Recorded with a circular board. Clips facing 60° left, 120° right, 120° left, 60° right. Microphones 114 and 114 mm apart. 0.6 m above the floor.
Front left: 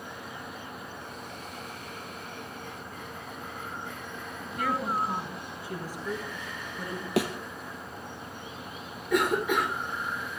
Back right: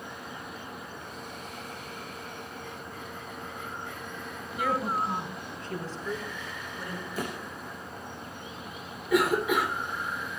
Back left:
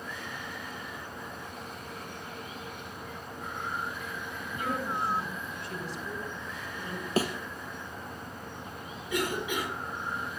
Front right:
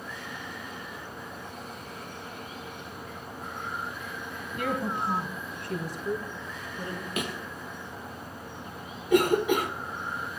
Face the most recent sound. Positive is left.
turn(degrees=-35)